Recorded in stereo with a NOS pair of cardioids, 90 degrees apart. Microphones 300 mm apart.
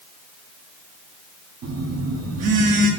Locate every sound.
1.6 s a phone buzzing: 60° right, 1.4 m